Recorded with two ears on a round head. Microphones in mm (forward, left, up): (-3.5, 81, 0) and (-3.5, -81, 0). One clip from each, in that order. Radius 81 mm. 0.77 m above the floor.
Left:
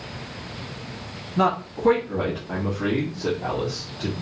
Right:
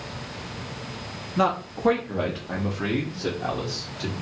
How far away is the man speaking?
About 0.9 m.